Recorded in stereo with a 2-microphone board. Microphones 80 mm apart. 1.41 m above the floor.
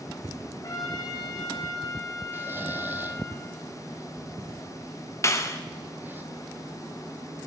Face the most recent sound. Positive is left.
turn(degrees=35)  # may be behind; listen again after turning